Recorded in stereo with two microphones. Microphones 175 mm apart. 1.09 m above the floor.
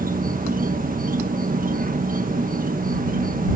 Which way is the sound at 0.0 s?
50° right (ahead or behind).